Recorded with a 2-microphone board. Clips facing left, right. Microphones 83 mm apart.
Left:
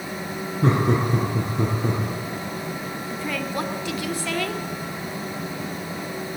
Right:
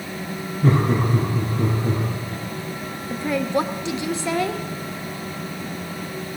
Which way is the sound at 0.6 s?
80° left.